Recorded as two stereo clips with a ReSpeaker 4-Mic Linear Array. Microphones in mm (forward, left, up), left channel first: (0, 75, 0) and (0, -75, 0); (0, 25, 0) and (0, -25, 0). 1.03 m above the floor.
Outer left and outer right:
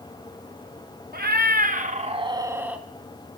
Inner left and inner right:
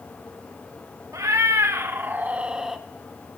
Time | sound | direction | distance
1.1 | a cat meowing | 75° right (ahead or behind) | 0.9 m